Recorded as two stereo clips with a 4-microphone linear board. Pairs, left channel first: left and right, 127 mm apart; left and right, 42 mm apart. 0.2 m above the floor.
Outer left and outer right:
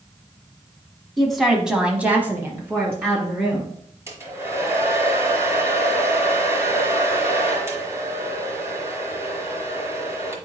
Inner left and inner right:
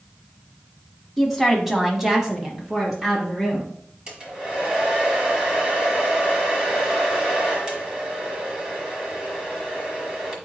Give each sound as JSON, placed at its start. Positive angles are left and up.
{"t": 1.2, "sound": "a woman speaking", "side_deg": 0, "distance_m": 1.3}
{"t": 4.1, "sound": "a hair dryer", "side_deg": -20, "distance_m": 1.3}